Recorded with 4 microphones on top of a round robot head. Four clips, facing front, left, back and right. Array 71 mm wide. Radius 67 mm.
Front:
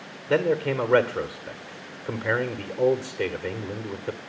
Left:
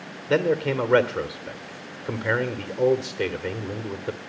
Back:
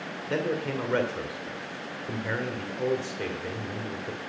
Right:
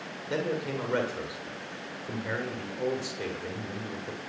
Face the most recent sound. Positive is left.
turn(degrees=55)